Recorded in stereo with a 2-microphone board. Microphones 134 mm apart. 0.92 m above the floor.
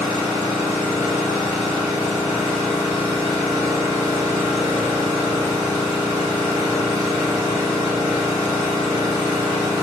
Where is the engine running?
25° right (ahead or behind), 1.0 m.